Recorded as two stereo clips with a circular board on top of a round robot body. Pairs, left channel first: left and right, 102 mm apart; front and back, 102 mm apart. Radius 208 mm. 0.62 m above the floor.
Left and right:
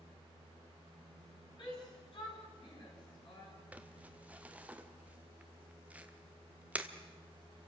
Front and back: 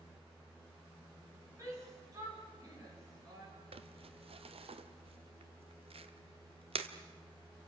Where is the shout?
125° left, 8.5 m; by 3.5 s 130° left, 10.5 m.